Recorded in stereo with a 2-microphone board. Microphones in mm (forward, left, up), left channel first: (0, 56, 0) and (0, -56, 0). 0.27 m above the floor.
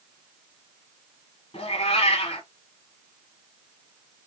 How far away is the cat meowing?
About 1.3 m.